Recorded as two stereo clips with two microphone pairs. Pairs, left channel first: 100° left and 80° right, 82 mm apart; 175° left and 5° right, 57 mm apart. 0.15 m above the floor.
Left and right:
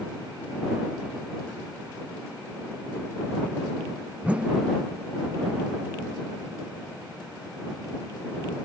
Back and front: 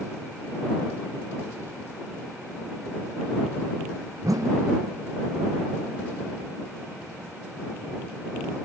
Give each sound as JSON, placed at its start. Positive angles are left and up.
{"t": 4.2, "sound": "a whoosh", "azimuth_deg": -5}